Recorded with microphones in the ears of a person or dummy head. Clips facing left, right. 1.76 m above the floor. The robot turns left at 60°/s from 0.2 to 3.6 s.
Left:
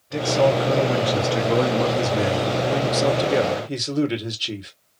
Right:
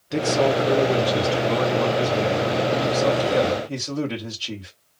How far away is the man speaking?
About 1.2 m.